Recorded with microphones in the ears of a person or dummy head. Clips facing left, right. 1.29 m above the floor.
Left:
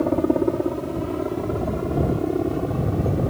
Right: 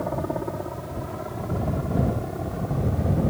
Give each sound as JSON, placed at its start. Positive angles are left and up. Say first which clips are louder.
{"t": 0.0, "sound": "a helicopter", "louder": "left 9 dB", "side_deg": 40}